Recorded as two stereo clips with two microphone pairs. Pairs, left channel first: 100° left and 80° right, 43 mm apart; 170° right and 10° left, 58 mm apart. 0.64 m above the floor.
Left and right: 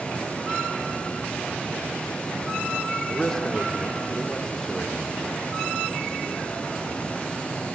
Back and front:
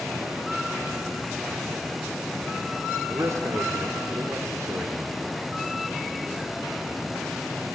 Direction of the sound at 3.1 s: 20° left.